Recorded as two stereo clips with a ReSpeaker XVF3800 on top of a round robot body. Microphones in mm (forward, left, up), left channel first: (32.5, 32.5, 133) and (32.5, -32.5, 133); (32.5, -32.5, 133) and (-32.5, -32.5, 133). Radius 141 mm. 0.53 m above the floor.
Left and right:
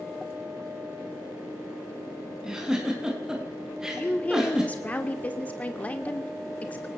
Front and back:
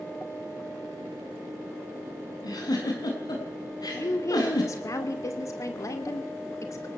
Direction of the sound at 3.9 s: 25° left.